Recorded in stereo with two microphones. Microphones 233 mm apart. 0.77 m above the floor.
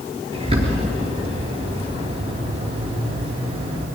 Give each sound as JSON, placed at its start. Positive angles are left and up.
{"t": 0.3, "sound": "a bird", "side_deg": -25, "distance_m": 5.0}